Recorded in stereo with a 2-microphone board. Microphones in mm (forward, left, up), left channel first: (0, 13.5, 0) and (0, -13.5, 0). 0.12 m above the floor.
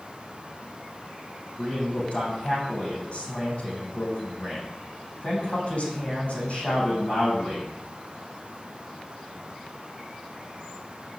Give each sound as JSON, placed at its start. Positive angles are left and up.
{"t": 1.6, "sound": "a man speaking", "side_deg": 50, "distance_m": 7.0}